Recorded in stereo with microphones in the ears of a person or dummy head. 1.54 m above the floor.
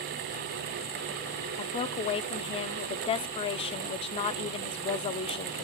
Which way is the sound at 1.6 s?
30° left (ahead or behind).